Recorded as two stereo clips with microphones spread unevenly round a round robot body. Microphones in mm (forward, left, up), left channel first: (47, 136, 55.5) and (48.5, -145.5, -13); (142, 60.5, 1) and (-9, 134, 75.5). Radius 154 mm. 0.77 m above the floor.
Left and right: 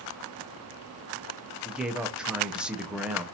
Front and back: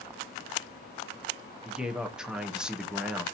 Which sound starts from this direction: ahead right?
A man speaking, at 1.6 s.